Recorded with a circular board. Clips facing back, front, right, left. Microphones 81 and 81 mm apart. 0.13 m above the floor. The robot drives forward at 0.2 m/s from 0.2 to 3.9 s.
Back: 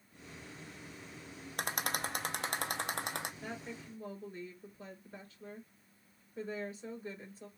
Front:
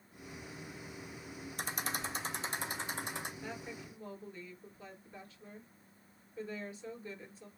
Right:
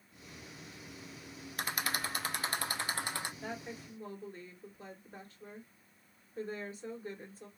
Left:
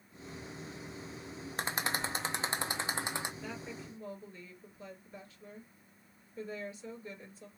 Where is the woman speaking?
130° right, 2.5 m.